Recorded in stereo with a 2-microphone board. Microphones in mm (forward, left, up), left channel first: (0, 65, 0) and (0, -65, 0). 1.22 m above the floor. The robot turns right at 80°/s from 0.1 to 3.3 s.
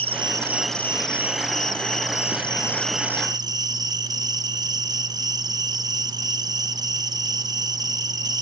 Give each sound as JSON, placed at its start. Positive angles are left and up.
{"t": 0.0, "sound": "an insect", "azimuth_deg": -45, "distance_m": 0.9}